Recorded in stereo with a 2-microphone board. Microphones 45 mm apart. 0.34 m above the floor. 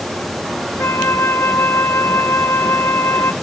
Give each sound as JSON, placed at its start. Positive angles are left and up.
{"t": 0.8, "sound": "a flute", "side_deg": 90, "distance_m": 0.7}